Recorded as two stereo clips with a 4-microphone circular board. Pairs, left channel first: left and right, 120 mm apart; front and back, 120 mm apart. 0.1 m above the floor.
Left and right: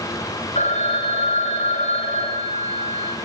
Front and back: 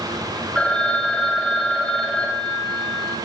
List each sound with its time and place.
0.6 s a phone ringing: 85° left, 7.5 m